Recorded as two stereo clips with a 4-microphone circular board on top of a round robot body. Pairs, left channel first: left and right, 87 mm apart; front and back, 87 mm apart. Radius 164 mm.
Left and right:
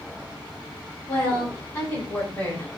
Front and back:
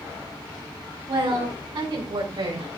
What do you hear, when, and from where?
1.1 s a woman speaking: 145° left, 3 m; by 2.7 s 155° left, 4 m